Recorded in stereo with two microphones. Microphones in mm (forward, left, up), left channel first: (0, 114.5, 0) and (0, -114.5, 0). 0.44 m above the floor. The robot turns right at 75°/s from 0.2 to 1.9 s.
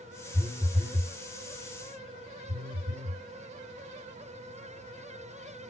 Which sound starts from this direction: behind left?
A phone buzzing, at 0.3 s.